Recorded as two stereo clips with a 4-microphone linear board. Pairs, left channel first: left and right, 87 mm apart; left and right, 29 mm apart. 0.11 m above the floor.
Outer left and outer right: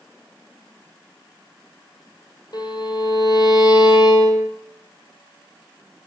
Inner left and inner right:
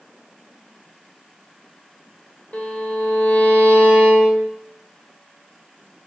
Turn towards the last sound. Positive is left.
turn(degrees=50)  # may be behind; listen again after turning